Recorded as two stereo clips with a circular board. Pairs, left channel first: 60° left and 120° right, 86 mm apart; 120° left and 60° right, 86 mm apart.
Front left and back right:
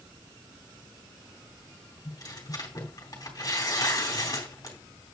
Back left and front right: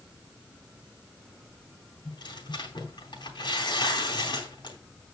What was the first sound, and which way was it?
Tearing paper, 100° left.